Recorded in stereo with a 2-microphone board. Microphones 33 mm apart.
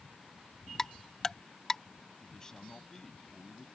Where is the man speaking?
20° left (ahead or behind).